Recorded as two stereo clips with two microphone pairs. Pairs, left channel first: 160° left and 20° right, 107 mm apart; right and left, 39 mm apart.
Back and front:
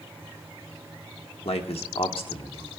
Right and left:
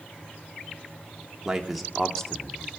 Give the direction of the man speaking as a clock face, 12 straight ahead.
7 o'clock.